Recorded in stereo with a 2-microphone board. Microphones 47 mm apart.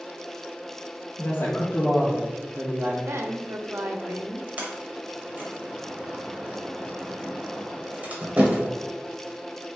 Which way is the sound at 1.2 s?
65° left (ahead or behind).